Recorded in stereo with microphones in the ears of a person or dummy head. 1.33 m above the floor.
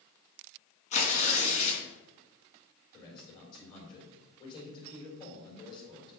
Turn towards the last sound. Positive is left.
turn(degrees=25)  # may be behind; listen again after turning